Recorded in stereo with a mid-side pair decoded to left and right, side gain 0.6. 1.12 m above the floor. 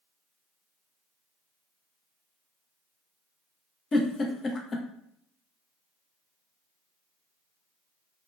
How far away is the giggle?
About 0.6 m.